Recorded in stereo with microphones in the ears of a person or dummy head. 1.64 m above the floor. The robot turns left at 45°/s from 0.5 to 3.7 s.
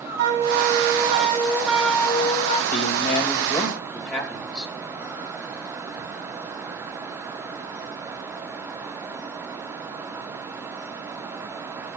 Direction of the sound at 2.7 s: 50° left.